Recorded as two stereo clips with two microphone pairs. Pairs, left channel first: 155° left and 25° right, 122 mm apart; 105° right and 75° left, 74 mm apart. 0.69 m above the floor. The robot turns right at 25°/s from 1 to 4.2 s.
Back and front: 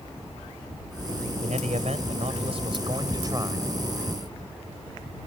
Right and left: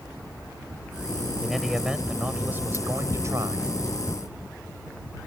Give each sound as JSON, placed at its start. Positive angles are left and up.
{"t": 1.4, "sound": "a man speaking", "azimuth_deg": -15}